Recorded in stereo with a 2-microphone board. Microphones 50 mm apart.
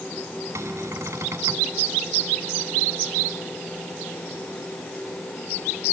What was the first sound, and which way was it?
A cupboard door, 75° right (ahead or behind).